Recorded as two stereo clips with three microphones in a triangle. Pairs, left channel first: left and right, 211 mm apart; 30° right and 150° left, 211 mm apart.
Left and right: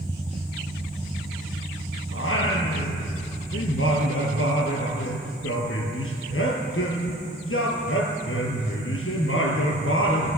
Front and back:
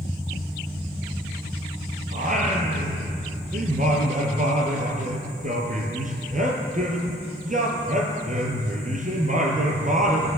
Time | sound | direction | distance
2.1 | singing | 100° left | 1.9 m